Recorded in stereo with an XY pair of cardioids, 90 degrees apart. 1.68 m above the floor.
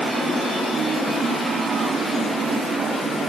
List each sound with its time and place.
Only background noise.